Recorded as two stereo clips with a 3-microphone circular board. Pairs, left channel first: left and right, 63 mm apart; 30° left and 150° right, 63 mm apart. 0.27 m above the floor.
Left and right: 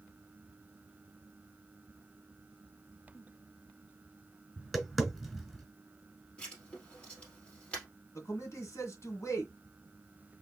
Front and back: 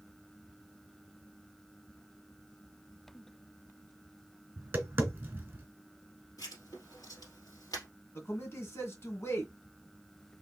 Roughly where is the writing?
Ahead.